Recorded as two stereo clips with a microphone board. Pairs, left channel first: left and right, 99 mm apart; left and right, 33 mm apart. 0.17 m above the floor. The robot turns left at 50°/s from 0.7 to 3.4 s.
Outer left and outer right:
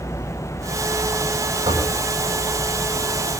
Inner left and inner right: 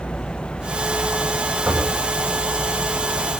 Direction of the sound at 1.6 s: 75° right (ahead or behind).